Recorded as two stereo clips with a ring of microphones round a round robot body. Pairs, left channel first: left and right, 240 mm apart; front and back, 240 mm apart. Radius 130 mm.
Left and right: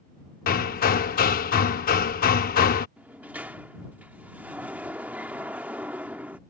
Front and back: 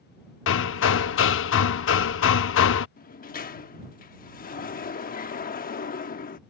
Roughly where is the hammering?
Ahead left.